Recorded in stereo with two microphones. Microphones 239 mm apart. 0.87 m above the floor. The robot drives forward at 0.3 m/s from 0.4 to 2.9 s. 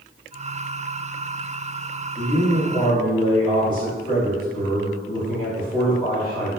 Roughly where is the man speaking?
Left.